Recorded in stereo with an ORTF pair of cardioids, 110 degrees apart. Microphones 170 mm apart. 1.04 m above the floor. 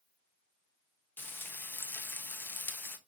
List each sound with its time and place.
1.2 s frying: 10° left, 0.6 m